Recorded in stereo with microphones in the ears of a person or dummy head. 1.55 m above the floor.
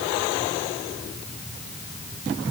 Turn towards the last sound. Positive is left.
No sound to turn to.